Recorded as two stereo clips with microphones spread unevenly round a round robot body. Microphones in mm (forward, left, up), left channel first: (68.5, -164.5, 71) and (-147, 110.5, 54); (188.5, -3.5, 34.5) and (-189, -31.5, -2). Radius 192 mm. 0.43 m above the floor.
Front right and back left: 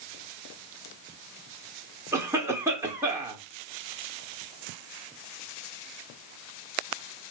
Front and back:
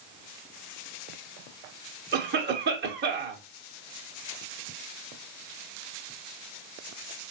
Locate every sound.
2.1 s a cough: 160° right, 0.9 m